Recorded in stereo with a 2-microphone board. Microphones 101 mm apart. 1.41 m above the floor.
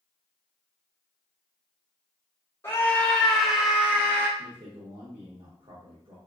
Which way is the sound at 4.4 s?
60° right (ahead or behind).